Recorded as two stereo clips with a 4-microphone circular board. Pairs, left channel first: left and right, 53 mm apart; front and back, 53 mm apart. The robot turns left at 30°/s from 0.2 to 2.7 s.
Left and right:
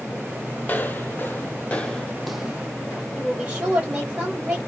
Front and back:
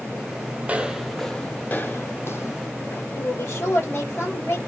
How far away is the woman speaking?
About 2 m.